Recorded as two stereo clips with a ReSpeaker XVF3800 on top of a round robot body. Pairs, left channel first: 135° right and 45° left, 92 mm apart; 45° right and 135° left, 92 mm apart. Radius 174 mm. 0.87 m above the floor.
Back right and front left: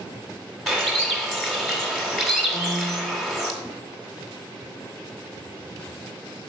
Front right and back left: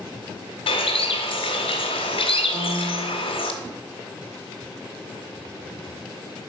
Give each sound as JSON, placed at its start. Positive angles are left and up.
{"t": 0.7, "sound": "a bird", "azimuth_deg": -45, "distance_m": 0.7}
{"t": 2.5, "sound": "a piano", "azimuth_deg": -165, "distance_m": 0.9}